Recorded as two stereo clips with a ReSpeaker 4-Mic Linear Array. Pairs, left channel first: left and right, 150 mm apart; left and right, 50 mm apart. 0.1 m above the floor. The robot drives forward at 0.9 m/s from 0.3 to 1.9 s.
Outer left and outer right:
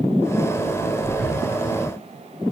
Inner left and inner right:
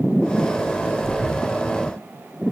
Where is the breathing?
5° left (ahead or behind), 7 m.